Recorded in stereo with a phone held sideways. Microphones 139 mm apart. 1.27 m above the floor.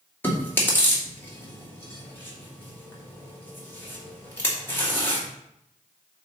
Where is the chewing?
15° left (ahead or behind), 2.5 m.